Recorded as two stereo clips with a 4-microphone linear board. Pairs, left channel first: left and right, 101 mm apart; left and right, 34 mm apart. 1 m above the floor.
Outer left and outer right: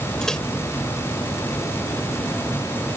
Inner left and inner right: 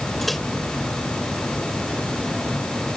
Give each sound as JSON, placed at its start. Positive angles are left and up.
{"t": 0.2, "sound": "a microwave", "side_deg": 5}